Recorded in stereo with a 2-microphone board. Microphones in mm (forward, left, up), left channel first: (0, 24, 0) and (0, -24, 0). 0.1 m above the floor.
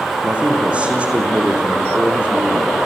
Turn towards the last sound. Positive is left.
turn(degrees=-25)  # may be behind; listen again after turning